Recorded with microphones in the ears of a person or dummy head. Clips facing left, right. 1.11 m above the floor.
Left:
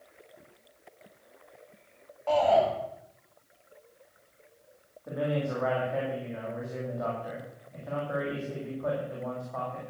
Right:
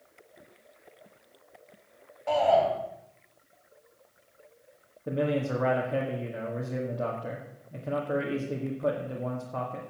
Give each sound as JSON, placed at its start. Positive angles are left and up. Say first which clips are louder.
{"t": 2.3, "sound": "a shout", "louder": "even", "side_deg": -10, "distance_m": 7.5}
{"t": 5.1, "sound": "a man speaking", "louder": "right 2 dB", "side_deg": -30, "distance_m": 2.0}